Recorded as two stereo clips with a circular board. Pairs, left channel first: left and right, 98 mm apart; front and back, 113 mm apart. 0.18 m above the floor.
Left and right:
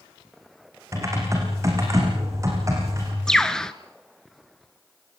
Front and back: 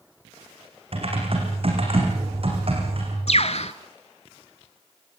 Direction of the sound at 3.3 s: 5° left.